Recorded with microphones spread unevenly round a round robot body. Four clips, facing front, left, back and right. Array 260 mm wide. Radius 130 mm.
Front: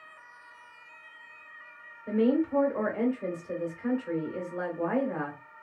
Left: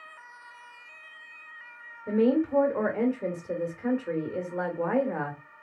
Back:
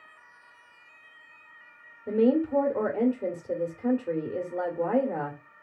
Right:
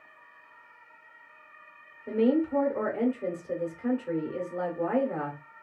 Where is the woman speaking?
150° left, 0.9 m.